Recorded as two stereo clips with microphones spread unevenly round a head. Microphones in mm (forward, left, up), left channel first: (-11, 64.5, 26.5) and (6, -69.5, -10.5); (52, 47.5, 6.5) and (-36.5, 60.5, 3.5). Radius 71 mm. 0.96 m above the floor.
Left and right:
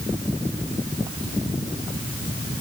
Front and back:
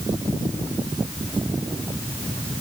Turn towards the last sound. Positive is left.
No sound to turn to.